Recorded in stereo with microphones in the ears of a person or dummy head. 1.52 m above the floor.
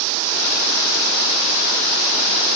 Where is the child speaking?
I don't hear a child speaking.